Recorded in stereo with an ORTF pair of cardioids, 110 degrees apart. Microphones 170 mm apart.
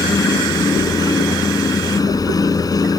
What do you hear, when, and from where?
0.0 s a fan: 20° left